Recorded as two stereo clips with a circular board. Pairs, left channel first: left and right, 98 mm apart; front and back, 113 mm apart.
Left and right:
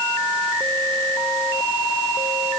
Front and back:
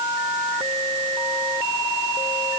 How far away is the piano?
I don't hear a piano.